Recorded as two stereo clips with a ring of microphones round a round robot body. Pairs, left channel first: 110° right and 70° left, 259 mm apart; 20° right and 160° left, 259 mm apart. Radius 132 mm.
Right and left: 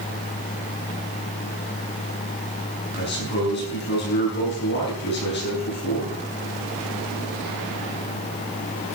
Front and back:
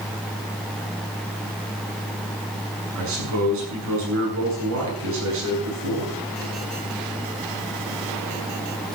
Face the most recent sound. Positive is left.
turn(degrees=-165)